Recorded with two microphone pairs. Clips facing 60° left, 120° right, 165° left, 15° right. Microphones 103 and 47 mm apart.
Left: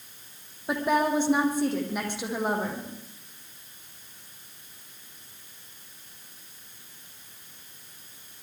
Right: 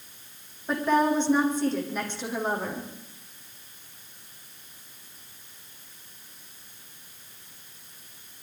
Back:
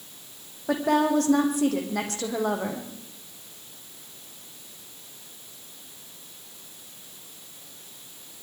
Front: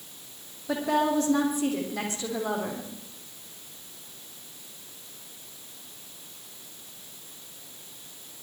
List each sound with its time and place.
0.7 s a woman speaking: 140° left, 8 m